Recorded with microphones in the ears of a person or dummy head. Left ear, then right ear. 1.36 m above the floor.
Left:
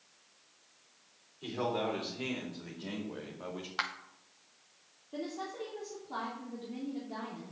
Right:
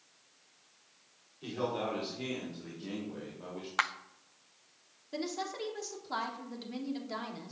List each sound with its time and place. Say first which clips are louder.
1.4 s a man speaking: left 1 dB; 15° left (ahead or behind), 4.5 m; by 3.7 s 35° left (ahead or behind), 3.5 m
3.8 s a clap: right 4 dB; 25° right (ahead or behind), 0.7 m
5.1 s a woman speaking: right 2 dB; 65° right (ahead or behind), 3.5 m